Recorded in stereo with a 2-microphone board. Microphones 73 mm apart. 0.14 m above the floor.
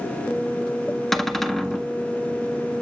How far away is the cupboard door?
About 0.5 m.